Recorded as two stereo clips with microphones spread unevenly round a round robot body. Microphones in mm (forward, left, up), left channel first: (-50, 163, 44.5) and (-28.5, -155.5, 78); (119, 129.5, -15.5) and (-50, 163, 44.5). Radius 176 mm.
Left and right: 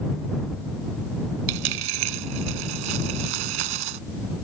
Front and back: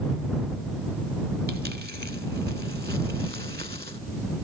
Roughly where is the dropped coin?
Right.